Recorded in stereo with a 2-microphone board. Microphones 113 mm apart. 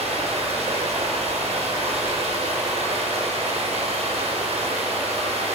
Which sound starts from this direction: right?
Running water, at 0.0 s.